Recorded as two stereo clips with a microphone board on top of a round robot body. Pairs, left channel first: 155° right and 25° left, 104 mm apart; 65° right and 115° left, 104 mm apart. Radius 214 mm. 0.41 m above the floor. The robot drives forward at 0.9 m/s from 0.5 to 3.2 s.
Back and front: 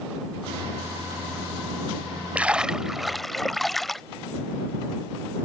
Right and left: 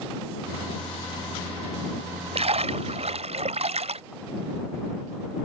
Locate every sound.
2.4 s a splash: 100° left; by 4.0 s 115° left